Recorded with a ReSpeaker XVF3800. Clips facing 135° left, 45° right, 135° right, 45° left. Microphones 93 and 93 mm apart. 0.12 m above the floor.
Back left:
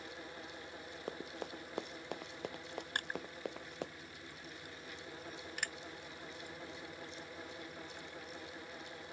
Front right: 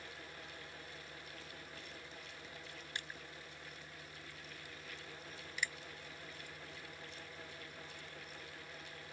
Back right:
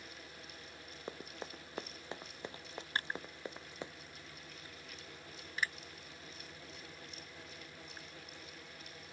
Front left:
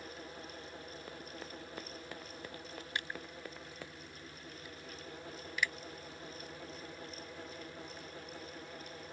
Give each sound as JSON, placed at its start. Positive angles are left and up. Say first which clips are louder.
{"t": 1.1, "sound": "running footsteps", "louder": "back left 9 dB, back right 5 dB", "azimuth_deg": 160}
{"t": 3.0, "sound": "crushing", "louder": "back left 6 dB, back right 3 dB", "azimuth_deg": 170}